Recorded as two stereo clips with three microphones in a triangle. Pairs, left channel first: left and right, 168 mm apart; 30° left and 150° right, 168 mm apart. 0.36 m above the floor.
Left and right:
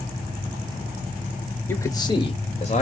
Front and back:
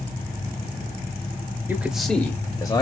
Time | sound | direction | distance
1.7 | a man speaking | 150° left | 1.0 m